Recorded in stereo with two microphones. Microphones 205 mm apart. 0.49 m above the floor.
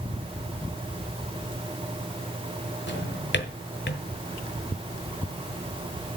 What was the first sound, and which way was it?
A drawer, 60° left (ahead or behind).